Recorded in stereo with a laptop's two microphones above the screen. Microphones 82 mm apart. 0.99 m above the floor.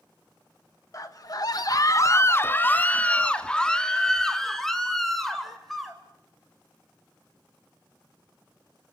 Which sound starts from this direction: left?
A scream, at 0.9 s.